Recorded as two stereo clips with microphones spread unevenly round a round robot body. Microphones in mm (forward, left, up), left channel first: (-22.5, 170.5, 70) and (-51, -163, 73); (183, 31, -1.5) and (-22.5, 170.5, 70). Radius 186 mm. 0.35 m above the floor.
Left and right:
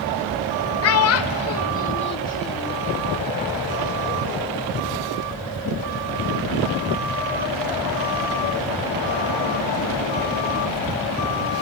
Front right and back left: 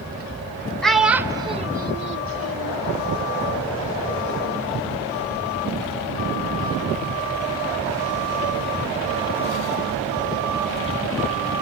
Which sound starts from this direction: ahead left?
A child speaking, at 0.8 s.